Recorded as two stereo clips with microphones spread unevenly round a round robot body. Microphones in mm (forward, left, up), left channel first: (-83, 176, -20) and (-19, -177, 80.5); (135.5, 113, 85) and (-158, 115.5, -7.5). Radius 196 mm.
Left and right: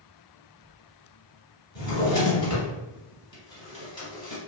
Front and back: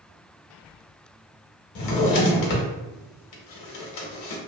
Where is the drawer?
20° left, 0.7 m.